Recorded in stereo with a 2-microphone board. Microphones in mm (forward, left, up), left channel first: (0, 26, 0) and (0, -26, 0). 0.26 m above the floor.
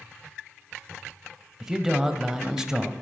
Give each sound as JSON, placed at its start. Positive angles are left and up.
{"t": 1.6, "sound": "a man speaking", "side_deg": -10, "distance_m": 1.0}